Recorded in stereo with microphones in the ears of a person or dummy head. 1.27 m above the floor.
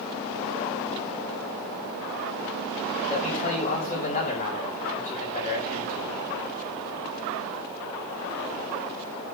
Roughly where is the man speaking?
Left.